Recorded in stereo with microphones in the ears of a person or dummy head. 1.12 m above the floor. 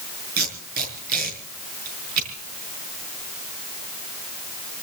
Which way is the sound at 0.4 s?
50° right (ahead or behind).